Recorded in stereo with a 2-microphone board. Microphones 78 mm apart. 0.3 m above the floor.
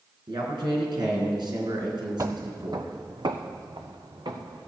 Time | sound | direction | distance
0.3 | a man speaking | 70° right (ahead or behind) | 3 m
2.2 | footsteps | 40° right (ahead or behind) | 0.5 m